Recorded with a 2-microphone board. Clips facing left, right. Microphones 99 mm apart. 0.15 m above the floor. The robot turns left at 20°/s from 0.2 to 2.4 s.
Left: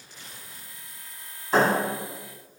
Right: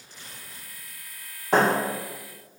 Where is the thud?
70° right (ahead or behind), 1.9 m; by 1.7 s 65° right (ahead or behind), 1.9 m.